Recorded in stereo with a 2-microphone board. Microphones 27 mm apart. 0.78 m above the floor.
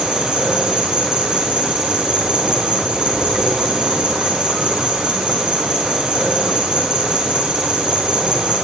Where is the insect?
30° right (ahead or behind), 5 m.